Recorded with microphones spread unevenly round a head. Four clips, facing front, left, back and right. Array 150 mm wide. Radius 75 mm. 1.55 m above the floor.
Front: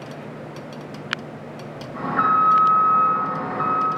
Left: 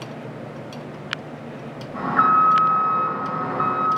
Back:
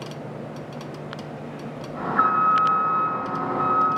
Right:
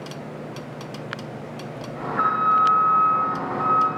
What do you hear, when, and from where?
1.9 s an alarm: 65° left, 2.5 m